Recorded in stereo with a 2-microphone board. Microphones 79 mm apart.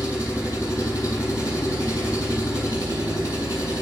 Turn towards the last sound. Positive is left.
turn(degrees=40)  # may be behind; listen again after turning